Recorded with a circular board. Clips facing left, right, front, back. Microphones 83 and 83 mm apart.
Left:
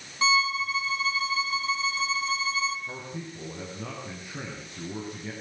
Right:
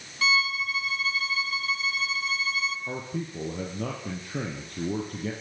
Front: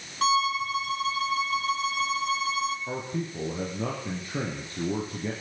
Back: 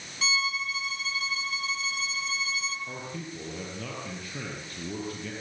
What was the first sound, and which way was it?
A violin, 30° left.